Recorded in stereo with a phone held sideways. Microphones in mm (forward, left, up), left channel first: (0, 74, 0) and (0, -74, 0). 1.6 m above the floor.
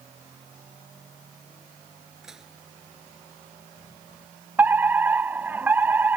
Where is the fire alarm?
10° right (ahead or behind).